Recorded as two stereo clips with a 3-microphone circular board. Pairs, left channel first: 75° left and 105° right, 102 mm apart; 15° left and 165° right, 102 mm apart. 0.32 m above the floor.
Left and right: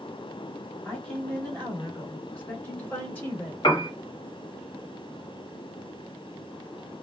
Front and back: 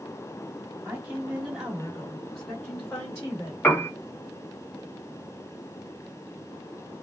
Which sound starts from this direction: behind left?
A woman speaking, at 0.8 s.